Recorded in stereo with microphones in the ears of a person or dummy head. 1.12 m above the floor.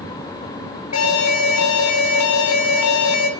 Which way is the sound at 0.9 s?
75° left (ahead or behind).